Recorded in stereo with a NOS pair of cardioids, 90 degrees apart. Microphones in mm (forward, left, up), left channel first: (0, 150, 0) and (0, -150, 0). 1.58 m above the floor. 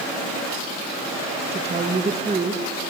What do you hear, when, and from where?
1.5 s a woman speaking: 20° right, 1.9 m